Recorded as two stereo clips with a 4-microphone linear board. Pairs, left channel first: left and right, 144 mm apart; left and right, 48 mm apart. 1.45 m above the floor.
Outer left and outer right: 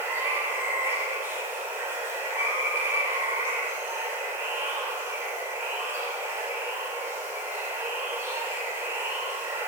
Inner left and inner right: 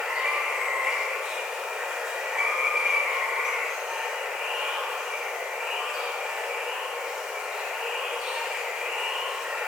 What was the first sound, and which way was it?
Running water, 15° right (ahead or behind).